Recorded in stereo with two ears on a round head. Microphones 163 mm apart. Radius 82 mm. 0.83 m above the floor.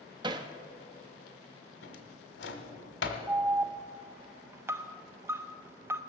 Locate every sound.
0.2 s hammering: 25° right (ahead or behind), 0.7 m
1.8 s a drawer: 75° left (ahead or behind), 1.5 m
3.3 s an alarm: 15° right (ahead or behind), 0.6 m